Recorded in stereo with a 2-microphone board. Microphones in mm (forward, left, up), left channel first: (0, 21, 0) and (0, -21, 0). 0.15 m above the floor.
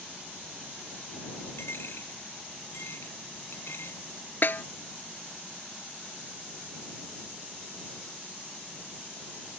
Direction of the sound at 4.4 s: 55° left (ahead or behind).